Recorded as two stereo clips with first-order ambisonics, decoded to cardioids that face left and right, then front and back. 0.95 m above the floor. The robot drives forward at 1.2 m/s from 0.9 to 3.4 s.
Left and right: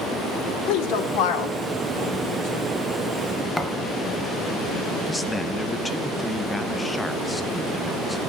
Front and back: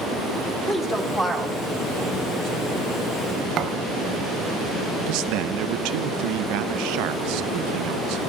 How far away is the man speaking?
About 0.6 m.